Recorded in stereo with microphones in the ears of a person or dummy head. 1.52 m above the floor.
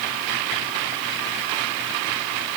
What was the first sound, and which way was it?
Only background noise.